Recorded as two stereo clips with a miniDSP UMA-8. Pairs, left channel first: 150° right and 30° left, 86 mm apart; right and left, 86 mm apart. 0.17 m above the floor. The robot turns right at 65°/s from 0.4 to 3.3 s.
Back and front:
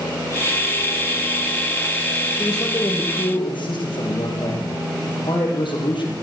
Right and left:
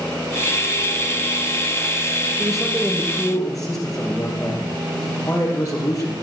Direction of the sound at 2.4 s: 165° left.